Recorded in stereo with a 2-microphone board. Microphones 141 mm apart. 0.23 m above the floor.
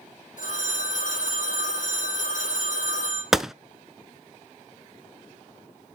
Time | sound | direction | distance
0.4 | a phone ringing | 65° left (ahead or behind) | 5 m
3.3 | a gunshot | 5° right (ahead or behind) | 0.5 m